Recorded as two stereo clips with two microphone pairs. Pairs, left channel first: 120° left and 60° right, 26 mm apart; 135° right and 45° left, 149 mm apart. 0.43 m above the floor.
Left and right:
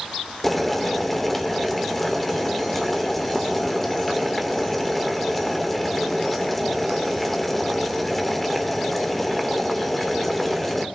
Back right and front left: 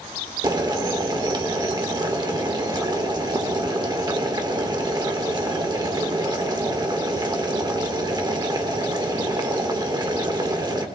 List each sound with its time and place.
0.4 s boiling: 50° left, 1.2 m